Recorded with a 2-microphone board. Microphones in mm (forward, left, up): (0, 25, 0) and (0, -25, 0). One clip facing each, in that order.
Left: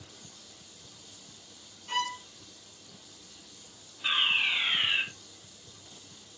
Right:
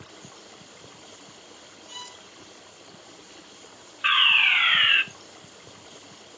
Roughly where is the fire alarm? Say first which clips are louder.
Right 8 dB; right.